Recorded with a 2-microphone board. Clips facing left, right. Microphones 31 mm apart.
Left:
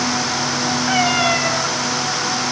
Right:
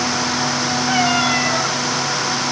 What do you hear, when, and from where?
0.9 s a cat meowing: 10° left (ahead or behind), 4 m